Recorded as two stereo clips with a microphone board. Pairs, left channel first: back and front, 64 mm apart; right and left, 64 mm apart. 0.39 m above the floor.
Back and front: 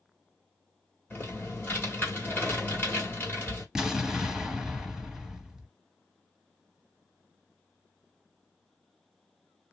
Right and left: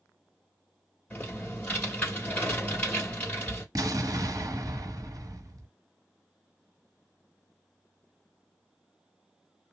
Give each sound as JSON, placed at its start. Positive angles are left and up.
{"t": 1.1, "sound": "typing on a keyboard", "azimuth_deg": -145, "distance_m": 1.8}
{"t": 3.8, "sound": "an explosion", "azimuth_deg": 85, "distance_m": 0.8}